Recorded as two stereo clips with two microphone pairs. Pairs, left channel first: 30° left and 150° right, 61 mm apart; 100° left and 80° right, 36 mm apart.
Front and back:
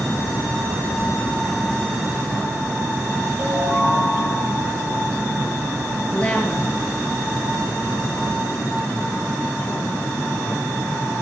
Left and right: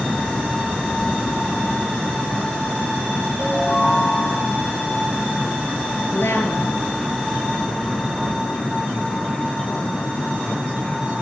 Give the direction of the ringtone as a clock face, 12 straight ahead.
7 o'clock.